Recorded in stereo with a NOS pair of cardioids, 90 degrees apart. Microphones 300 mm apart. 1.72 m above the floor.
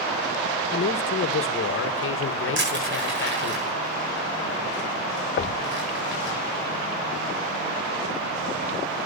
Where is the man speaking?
45° left, 1.7 m.